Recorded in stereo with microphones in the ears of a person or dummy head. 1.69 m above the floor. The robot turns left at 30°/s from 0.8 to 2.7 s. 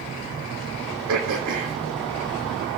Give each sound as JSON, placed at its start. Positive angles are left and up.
{"t": 1.1, "sound": "throat clearing", "side_deg": -75, "distance_m": 3.5}